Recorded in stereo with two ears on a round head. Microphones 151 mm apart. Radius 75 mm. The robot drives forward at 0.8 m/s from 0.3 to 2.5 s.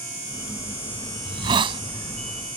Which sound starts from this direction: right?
A hiss, at 1.2 s.